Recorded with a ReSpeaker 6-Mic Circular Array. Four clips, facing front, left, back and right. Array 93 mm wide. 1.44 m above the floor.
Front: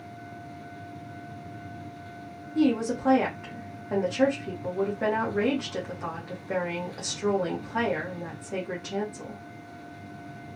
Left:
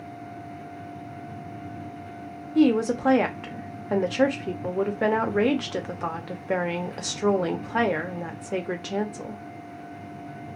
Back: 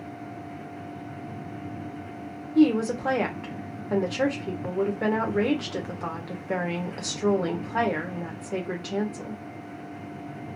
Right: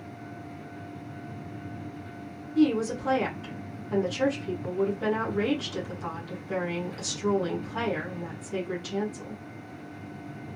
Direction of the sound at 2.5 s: 100° left.